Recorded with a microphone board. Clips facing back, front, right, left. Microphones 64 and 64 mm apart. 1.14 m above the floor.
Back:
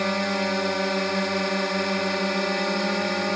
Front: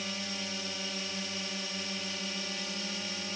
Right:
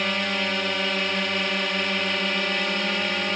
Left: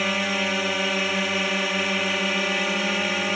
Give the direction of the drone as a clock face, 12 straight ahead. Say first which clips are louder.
Back 15 dB, left 1 dB; 6 o'clock.